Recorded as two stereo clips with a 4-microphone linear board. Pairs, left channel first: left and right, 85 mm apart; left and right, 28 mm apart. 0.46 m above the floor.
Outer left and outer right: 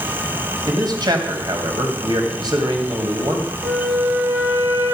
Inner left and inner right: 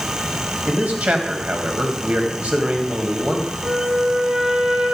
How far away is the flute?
About 2 m.